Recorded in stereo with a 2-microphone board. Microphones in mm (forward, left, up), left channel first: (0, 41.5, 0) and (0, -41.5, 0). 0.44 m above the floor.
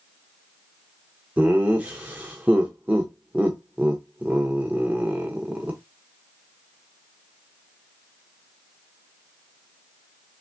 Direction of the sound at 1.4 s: 15° right (ahead or behind).